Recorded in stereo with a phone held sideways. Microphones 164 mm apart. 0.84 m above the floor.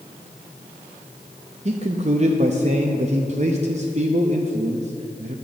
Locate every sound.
1.6 s a man speaking: 45° right (ahead or behind), 0.6 m